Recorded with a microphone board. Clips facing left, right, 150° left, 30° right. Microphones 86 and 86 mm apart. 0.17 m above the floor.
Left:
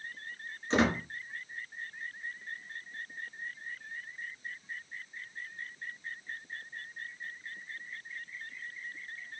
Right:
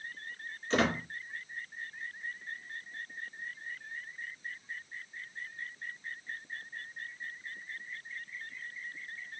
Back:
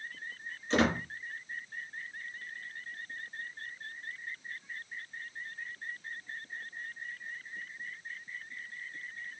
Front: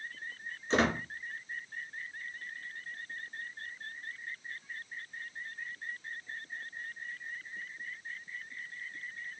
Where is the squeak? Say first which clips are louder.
Left 2 dB, back 1 dB; 25° left, 1.2 m.